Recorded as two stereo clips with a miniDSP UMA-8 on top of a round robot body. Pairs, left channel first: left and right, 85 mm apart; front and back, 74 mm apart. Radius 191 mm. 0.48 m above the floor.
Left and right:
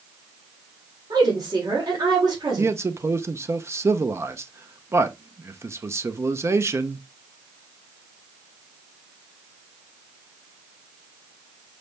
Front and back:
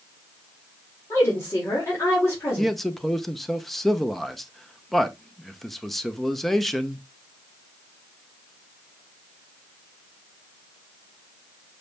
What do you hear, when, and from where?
1.1 s a woman speaking: 55° right, 2.5 m
2.6 s a man speaking: 85° right, 0.8 m